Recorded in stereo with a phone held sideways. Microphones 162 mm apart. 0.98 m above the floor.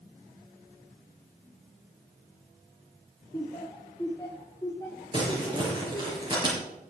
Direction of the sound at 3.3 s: 20° left (ahead or behind).